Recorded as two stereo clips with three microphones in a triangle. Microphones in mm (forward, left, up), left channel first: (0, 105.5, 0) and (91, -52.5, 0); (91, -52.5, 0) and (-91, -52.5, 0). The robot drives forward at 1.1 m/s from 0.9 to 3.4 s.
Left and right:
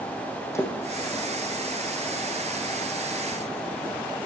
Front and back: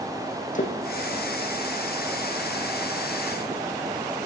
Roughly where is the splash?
Ahead left.